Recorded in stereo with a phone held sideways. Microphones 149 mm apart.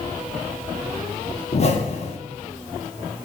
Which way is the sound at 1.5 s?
45° left (ahead or behind).